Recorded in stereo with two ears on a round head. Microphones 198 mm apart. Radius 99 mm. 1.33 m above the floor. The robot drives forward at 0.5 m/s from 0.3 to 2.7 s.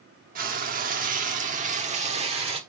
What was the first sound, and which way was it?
Frying, 40° right (ahead or behind).